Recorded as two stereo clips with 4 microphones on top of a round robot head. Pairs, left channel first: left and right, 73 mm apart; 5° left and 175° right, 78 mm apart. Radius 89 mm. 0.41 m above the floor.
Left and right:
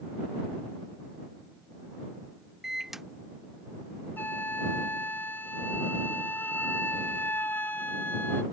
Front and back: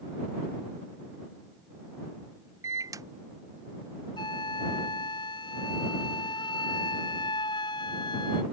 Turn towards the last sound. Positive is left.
turn(degrees=30)